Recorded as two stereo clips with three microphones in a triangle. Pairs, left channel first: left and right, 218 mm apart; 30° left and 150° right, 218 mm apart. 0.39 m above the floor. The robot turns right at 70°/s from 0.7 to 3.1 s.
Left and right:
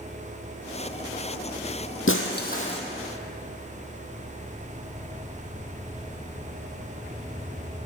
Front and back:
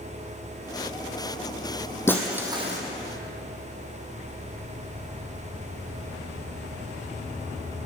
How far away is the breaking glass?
About 1.4 m.